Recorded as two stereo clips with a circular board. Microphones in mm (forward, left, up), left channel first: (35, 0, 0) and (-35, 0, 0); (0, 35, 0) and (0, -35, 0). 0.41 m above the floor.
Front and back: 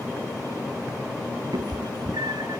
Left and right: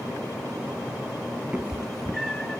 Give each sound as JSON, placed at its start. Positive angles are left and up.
{"t": 1.5, "sound": "a cat meowing", "azimuth_deg": -165, "distance_m": 0.6}